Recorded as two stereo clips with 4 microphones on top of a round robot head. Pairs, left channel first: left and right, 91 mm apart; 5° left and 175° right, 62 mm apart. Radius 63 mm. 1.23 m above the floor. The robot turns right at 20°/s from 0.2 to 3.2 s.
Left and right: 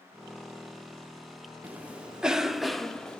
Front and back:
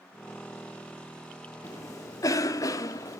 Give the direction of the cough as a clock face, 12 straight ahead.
1 o'clock.